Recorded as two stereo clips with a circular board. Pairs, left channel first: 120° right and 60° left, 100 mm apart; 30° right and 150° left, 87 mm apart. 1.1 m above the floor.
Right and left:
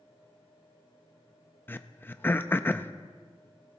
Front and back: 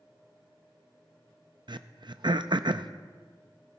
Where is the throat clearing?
175° left, 0.5 m.